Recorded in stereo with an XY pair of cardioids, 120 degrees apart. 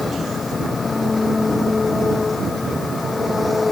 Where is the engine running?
15° left.